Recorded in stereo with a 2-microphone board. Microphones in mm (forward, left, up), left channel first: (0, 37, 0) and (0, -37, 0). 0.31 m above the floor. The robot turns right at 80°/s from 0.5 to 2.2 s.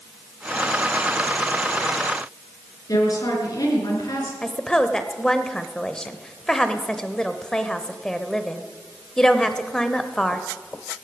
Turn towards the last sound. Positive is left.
turn(degrees=10)  # may be behind; listen again after turning